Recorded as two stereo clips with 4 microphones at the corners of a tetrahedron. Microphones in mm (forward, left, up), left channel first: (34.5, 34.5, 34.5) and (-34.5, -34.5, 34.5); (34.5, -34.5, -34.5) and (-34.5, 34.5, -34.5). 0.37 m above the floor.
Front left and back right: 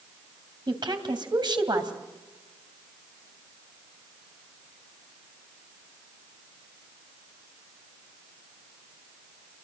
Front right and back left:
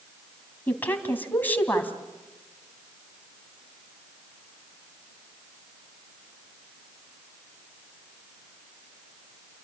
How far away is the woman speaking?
About 2.5 m.